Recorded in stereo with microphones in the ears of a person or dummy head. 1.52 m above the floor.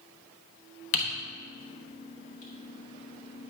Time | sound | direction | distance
0.9 | typing on a keyboard | 35° left (ahead or behind) | 1.0 m